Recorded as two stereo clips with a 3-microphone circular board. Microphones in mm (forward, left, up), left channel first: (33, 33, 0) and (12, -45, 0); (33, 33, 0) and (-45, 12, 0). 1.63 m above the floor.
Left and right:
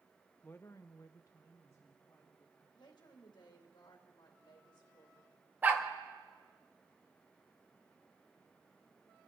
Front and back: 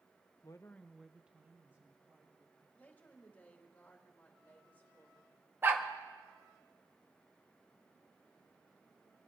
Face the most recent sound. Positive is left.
turn(degrees=-145)